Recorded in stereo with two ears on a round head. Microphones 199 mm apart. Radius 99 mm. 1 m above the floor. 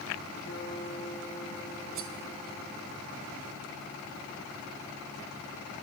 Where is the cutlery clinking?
60° right (ahead or behind), 2.5 m.